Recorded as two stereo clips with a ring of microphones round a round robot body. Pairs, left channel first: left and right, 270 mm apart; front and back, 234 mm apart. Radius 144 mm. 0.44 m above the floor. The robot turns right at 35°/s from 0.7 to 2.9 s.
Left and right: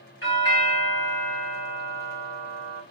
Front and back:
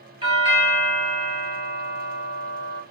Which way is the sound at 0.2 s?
120° left.